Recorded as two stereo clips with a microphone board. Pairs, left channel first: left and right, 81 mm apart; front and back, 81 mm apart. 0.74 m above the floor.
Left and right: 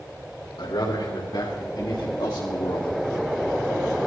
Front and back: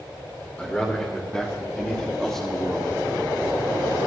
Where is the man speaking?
75° left, 3 m; by 2.9 s 90° left, 1.3 m.